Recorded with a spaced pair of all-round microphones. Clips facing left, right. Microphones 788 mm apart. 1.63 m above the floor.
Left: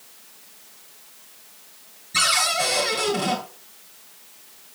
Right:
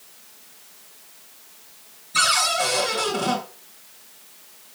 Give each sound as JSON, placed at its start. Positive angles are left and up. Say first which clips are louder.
{"t": 2.1, "sound": "a cupboard door", "louder": "right 1 dB", "side_deg": 50, "distance_m": 6.5}